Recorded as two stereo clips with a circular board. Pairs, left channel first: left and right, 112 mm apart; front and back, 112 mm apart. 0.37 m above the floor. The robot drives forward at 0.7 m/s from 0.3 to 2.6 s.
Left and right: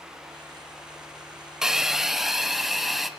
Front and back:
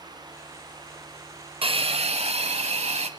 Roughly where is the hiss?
Behind.